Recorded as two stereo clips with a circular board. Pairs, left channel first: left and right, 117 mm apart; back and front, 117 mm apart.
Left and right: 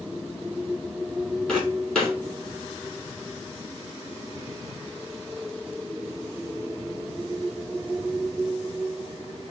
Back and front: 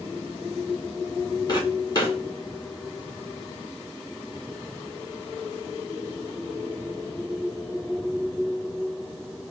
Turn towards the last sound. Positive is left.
turn(degrees=175)